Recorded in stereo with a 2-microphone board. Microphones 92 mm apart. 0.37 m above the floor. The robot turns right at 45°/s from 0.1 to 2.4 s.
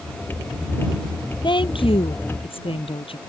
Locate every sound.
1.4 s a woman speaking: 60° left; by 3.2 s 105° left